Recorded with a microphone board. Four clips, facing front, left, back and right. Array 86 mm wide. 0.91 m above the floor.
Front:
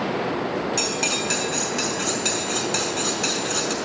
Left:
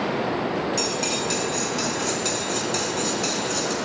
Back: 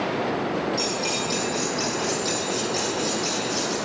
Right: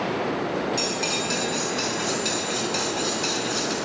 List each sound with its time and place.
0.8 s cutlery clinking: 5° right, 6 m